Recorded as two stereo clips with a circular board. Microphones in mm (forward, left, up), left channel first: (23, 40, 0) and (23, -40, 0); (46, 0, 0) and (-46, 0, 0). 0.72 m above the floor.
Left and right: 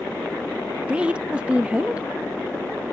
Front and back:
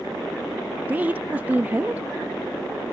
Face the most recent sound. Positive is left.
turn(degrees=-145)